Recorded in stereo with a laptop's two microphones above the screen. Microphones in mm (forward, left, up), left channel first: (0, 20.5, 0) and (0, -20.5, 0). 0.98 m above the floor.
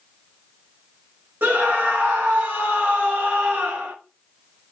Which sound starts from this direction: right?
A scream, at 1.4 s.